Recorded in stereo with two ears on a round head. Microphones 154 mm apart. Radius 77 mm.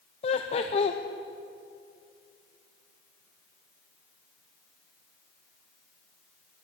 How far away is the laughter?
About 0.6 m.